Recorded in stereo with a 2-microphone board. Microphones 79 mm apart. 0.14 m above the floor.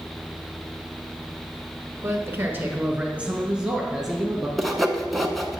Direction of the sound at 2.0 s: 30° right (ahead or behind).